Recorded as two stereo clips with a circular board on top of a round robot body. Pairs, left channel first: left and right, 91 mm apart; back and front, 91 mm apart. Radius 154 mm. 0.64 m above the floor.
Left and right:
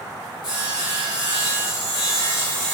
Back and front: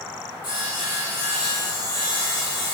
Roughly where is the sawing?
Behind left.